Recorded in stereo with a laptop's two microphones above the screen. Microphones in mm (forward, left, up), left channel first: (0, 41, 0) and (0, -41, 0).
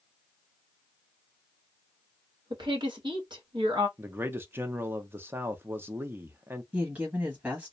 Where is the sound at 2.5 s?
65° right (ahead or behind), 1.1 m.